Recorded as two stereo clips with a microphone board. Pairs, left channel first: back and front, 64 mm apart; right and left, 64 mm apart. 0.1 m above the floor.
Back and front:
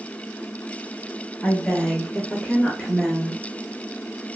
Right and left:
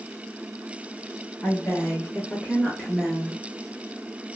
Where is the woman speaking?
110° right, 1.4 m; by 3.4 s 130° left, 1.2 m.